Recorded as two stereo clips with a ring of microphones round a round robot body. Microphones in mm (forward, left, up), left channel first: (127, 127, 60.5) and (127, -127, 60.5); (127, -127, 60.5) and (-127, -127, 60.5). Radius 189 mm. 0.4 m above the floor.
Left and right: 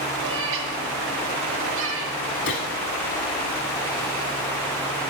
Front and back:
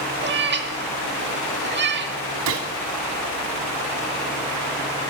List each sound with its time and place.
0.2 s a cat meowing: 130° right, 1.2 m
2.5 s a gunshot: 145° left, 0.9 m